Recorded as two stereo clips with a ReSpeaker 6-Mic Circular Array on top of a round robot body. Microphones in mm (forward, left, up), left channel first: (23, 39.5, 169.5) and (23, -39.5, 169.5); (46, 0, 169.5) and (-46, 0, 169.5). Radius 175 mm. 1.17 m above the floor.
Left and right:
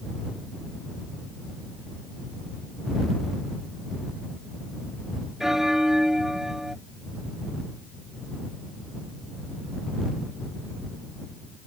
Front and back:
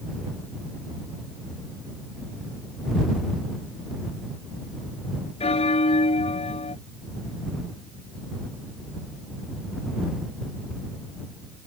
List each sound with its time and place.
5.4 s a bell: 5° right